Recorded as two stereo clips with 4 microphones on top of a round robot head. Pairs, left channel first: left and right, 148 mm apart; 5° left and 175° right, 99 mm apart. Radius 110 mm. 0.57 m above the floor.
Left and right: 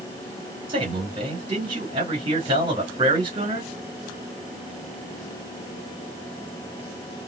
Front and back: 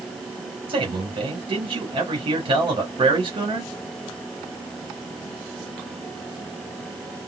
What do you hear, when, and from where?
0.7 s a man speaking: 145° right, 2.5 m